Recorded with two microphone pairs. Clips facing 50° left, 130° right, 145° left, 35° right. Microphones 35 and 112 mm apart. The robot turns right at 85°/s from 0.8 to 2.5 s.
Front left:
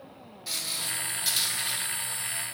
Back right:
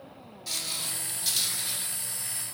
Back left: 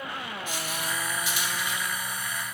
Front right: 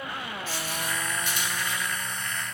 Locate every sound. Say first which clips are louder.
0.5 s footsteps: front left 1 dB, even; 100° left, 1.6 m